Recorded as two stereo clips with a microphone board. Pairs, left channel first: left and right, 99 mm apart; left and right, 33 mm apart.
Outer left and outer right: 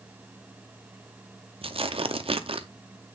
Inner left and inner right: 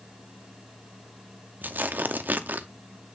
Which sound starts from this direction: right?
Tearing paper, at 1.6 s.